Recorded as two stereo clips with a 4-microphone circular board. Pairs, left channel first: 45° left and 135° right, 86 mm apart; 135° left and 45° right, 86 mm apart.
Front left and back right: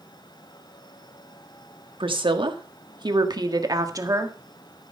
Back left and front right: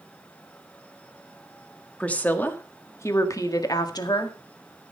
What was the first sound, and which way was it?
A woman speaking, 150° right.